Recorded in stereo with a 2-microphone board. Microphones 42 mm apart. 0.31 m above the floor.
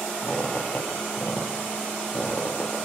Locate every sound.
0.2 s a squeak: 30° left (ahead or behind), 6 m